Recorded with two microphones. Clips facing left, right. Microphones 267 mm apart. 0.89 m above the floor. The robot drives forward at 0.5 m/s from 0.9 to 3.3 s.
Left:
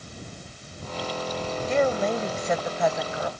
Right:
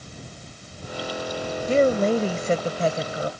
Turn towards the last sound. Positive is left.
turn(degrees=-30)  # may be behind; listen again after turning